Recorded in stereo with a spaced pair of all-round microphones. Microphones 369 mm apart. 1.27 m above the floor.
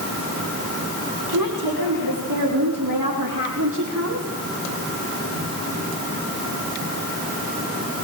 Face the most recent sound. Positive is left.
turn(degrees=-40)  # may be behind; listen again after turning